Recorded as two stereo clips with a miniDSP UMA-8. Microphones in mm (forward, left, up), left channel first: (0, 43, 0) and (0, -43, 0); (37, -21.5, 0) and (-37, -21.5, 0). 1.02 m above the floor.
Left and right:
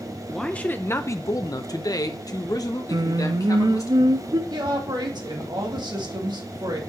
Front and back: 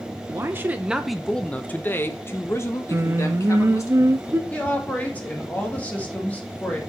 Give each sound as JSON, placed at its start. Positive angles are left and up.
{"t": 0.3, "sound": "a man speaking", "azimuth_deg": 170, "distance_m": 0.6}
{"t": 2.9, "sound": "singing", "azimuth_deg": -125, "distance_m": 0.5}
{"t": 4.5, "sound": "a woman speaking", "azimuth_deg": -65, "distance_m": 2.0}